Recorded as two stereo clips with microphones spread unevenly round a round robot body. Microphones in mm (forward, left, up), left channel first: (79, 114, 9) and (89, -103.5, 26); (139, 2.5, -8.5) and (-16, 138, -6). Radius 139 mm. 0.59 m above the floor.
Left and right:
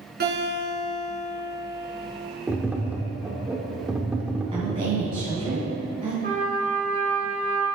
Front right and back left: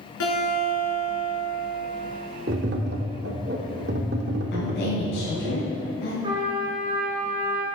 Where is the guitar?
50° right, 4 m.